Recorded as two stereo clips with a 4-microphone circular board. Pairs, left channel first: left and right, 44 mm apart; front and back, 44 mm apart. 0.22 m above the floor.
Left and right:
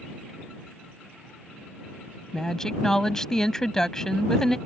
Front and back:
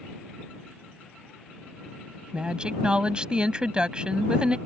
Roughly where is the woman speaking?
Behind left.